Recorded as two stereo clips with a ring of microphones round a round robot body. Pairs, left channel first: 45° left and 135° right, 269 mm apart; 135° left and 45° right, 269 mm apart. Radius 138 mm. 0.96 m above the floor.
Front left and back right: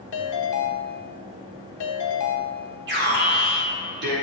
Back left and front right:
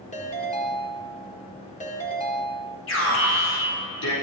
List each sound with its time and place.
0.1 s a ringtone: 70° left, 1.7 m
2.9 s an alarm: 175° left, 4 m